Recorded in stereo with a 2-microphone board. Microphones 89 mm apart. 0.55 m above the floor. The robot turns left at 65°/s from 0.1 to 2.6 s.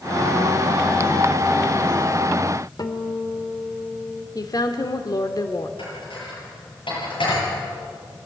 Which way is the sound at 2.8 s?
50° left (ahead or behind).